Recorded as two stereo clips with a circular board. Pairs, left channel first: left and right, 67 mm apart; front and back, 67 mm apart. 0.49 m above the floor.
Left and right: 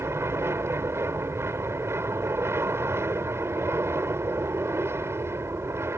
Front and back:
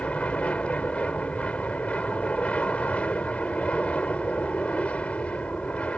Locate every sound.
0.0 s an aircraft: 65° right